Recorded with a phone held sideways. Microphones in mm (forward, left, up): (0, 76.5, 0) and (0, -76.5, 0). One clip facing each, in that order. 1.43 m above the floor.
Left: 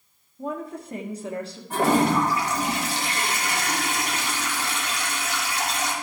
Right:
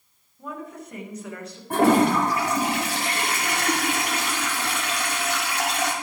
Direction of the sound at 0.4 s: 30° left (ahead or behind).